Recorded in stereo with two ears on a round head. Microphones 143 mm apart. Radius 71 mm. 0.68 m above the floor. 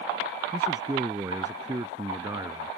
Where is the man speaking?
20° right (ahead or behind).